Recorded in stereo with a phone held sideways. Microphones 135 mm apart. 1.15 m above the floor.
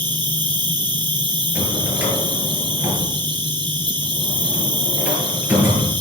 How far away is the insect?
About 2.5 m.